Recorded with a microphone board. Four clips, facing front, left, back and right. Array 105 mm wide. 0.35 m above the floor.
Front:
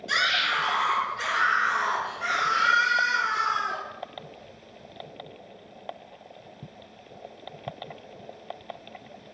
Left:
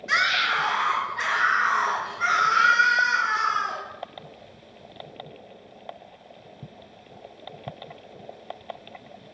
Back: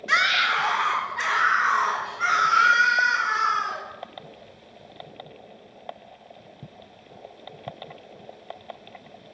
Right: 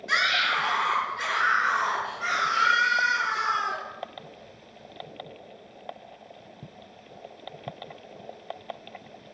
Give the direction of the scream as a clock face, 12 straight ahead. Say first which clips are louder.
Left 2 dB, back 4 dB; 7 o'clock.